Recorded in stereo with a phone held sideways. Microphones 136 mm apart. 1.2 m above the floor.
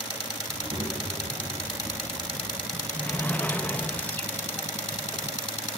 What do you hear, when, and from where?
0.5 s a child speaking: 35° right (ahead or behind), 6.5 m; by 2.6 s 40° right (ahead or behind), 9.5 m
2.7 s a sliding door: 15° left (ahead or behind), 0.9 m